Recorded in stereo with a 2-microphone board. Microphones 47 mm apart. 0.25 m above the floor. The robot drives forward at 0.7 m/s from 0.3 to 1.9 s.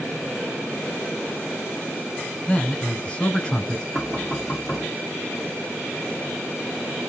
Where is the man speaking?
20° left (ahead or behind), 1.4 m.